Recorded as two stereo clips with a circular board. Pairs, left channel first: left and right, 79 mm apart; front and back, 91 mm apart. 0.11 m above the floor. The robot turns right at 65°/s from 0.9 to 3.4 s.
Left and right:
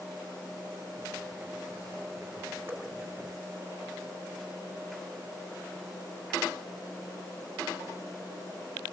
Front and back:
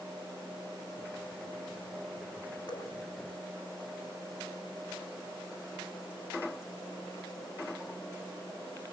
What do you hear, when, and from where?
2.7 s dripping: 25° right, 6.5 m; by 2.9 s 10° right, 6.5 m